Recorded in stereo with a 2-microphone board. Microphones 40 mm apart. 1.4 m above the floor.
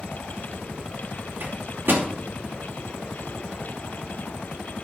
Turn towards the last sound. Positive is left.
turn(degrees=-65)  # may be behind; listen again after turning